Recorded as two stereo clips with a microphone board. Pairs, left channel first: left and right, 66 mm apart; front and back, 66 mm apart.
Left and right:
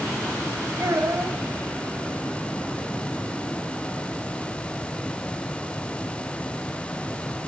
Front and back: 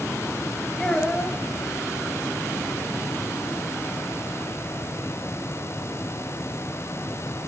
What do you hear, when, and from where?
0.8 s a child speaking: 75° right, 1.3 m